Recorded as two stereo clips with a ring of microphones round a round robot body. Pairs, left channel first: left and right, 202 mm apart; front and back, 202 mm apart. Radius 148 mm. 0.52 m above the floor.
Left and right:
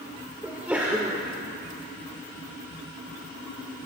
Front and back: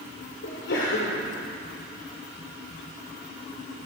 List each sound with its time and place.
0.4 s a sneeze: 10° right, 2 m